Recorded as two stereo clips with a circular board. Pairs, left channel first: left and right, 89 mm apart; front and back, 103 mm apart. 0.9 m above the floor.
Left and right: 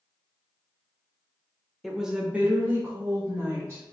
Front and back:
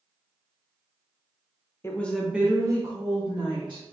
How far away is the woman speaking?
About 0.7 m.